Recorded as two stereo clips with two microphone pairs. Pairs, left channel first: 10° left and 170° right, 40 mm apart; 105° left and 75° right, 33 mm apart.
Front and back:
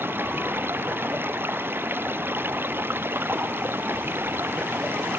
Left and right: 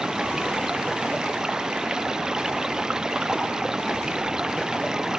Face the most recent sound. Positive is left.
turn(degrees=-145)